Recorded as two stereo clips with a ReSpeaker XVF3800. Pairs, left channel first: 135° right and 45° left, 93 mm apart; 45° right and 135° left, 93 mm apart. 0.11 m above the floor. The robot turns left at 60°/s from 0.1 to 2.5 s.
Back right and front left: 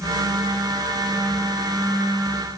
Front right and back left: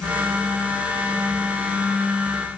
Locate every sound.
Only background noise.